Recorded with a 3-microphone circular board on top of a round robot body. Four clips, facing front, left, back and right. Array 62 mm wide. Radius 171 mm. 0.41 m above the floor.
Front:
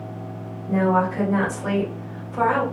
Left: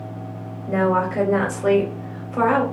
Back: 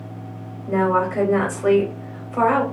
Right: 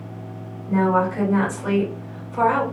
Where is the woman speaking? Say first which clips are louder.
Even, back 1 dB; 135° left, 1.8 m.